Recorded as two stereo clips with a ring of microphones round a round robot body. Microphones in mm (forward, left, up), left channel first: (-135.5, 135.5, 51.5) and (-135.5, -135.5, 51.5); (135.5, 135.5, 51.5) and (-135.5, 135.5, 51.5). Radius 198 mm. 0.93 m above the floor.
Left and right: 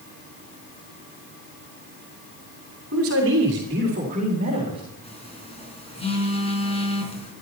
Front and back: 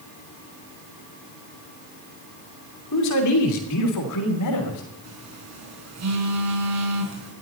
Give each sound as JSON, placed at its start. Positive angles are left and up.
{"t": 2.9, "sound": "a man speaking", "azimuth_deg": -40, "distance_m": 2.5}
{"t": 5.0, "sound": "a phone buzzing", "azimuth_deg": 160, "distance_m": 5.0}